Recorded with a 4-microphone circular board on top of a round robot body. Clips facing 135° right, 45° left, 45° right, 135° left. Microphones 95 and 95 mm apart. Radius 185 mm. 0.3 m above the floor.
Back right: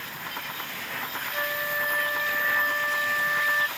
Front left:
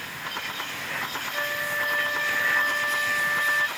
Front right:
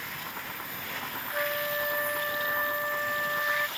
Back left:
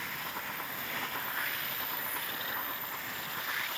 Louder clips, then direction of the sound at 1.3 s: Back right 1 dB, front right 8 dB; 50° right.